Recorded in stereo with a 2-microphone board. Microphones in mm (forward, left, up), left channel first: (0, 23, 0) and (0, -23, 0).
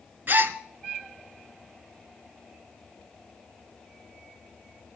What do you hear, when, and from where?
0.3 s a gasp: 45° right (ahead or behind), 0.6 m